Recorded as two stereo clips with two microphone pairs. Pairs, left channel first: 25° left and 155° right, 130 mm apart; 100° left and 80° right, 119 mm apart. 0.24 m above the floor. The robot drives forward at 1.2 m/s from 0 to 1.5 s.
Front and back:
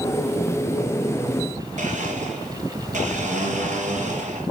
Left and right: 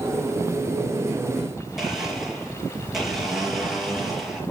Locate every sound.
1.8 s a blender: 170° right, 4 m